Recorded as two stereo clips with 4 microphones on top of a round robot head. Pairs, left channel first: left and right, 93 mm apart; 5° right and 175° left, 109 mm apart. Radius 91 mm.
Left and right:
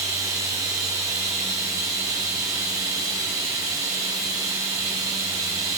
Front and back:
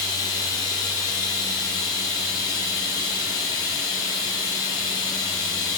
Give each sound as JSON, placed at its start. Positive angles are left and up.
{"t": 0.0, "sound": "running water", "azimuth_deg": -45, "distance_m": 0.8}